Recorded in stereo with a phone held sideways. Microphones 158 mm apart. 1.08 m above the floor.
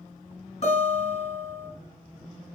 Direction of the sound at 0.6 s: 50° left (ahead or behind).